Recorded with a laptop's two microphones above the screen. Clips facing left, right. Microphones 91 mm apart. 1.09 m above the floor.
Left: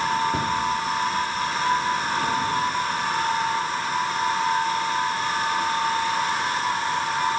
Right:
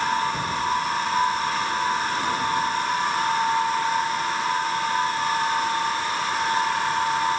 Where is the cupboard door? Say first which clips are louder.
Left 3 dB; 80° left, 2.5 m.